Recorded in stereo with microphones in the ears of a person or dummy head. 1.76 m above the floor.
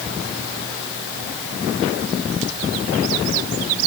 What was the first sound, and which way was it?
Only background noise.